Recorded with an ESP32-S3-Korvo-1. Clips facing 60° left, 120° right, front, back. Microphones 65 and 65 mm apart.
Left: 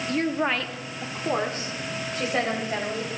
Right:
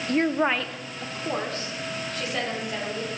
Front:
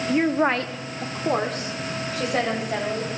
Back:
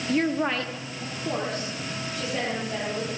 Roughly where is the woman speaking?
Right.